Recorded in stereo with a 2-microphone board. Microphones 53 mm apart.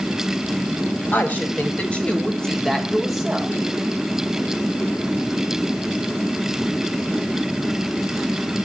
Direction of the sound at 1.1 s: 40° left (ahead or behind).